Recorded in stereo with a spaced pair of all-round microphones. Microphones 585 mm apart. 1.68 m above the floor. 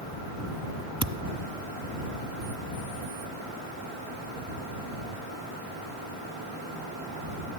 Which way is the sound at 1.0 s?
30° right (ahead or behind).